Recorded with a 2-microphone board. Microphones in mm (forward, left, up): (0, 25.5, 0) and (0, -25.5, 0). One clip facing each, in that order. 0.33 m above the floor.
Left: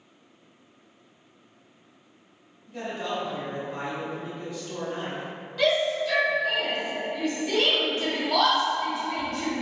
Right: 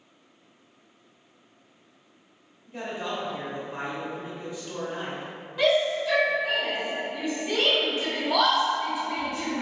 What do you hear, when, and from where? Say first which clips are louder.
2.7 s a man speaking: left 1 dB; 20° right (ahead or behind), 0.8 m
5.6 s a shout: right 1 dB; 20° right (ahead or behind), 0.9 m